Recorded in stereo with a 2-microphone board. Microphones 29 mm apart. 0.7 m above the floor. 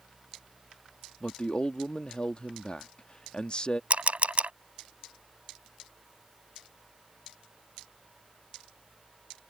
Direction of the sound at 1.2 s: 35° left (ahead or behind).